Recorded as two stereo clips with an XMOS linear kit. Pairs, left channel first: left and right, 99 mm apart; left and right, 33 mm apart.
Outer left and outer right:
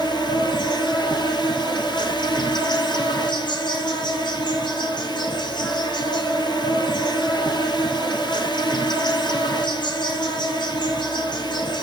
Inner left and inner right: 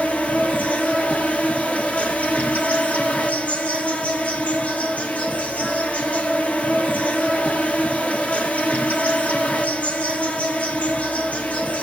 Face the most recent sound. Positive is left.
turn(degrees=50)  # may be behind; listen again after turning